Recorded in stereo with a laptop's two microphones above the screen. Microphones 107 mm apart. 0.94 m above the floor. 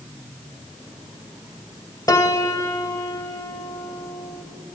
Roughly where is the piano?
Left.